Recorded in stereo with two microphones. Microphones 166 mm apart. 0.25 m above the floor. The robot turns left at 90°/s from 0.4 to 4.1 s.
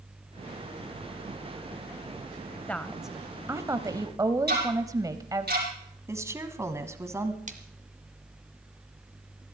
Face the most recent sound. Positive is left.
turn(degrees=-50)  # may be behind; listen again after turning